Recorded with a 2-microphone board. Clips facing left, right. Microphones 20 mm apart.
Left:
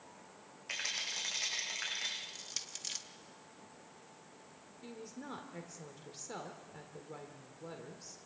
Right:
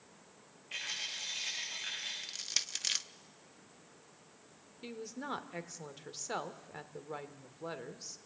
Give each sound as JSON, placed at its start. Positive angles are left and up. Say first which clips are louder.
{"t": 0.7, "sound": "a rattle", "louder": "left 1 dB", "side_deg": 70, "distance_m": 10.0}
{"t": 2.2, "sound": "crushing", "louder": "right 7 dB", "side_deg": -35, "distance_m": 0.6}
{"t": 4.8, "sound": "a woman speaking", "louder": "right 5 dB", "side_deg": -35, "distance_m": 1.6}